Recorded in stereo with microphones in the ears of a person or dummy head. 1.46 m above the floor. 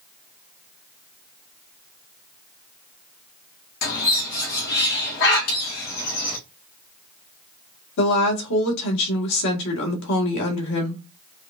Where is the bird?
55° left (ahead or behind), 1.1 m.